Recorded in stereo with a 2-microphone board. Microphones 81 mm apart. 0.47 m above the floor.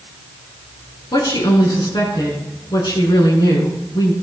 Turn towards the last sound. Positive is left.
turn(degrees=60)  # may be behind; listen again after turning